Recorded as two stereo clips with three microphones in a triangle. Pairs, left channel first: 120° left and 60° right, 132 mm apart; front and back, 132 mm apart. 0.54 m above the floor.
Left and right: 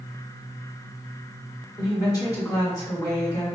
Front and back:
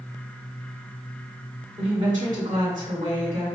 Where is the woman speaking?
Straight behind, 1.7 m.